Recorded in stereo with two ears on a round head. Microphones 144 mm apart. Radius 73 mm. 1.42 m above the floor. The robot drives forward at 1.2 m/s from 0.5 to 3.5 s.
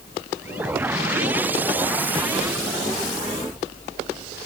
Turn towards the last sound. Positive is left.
No sound to turn to.